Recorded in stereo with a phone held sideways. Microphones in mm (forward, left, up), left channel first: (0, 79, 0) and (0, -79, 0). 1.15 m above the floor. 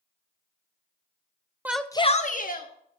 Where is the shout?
10° right (ahead or behind), 0.6 m; by 2.7 s 70° left (ahead or behind), 1.1 m.